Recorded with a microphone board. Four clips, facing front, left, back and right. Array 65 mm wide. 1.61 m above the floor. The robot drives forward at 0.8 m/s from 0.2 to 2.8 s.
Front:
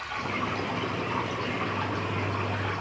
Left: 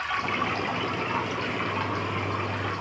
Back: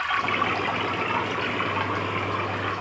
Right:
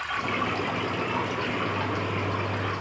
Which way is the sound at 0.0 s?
175° left.